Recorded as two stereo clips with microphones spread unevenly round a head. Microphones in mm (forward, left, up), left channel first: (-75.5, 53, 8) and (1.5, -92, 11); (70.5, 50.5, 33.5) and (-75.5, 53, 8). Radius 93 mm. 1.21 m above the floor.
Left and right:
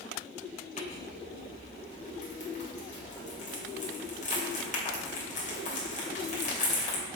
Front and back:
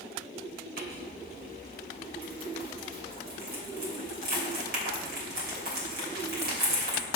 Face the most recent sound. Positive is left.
turn(degrees=160)